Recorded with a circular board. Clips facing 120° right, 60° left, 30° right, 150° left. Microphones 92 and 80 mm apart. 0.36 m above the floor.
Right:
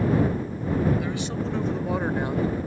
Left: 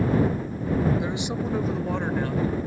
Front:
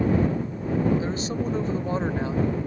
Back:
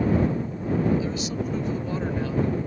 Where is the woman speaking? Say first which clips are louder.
Left 1 dB, front 1 dB; straight ahead; by 2.6 s 85° right.